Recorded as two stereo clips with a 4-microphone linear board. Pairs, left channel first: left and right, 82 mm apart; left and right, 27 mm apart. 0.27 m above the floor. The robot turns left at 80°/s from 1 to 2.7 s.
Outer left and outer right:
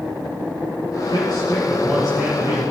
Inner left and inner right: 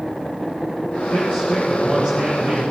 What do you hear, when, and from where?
1.1 s a man speaking: 80° left, 5.5 m; by 2.6 s 45° right, 5.5 m